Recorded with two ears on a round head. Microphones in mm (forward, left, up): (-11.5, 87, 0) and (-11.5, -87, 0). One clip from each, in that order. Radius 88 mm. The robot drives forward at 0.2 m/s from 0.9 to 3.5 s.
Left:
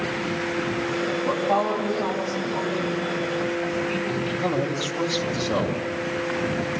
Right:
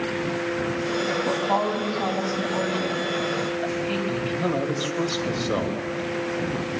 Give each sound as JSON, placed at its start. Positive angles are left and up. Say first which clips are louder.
{"t": 1.2, "sound": "a woman speaking", "louder": "left 3 dB", "side_deg": -85, "distance_m": 7.5}
{"t": 4.1, "sound": "a man speaking", "louder": "even", "side_deg": -35, "distance_m": 4.5}